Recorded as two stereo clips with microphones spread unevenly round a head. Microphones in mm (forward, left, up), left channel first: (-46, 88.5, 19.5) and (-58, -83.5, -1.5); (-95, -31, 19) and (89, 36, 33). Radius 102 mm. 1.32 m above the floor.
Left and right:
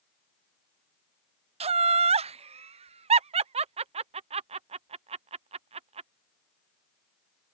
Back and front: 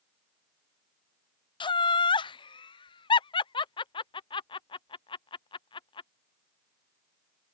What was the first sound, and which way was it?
Laughter, 110° right.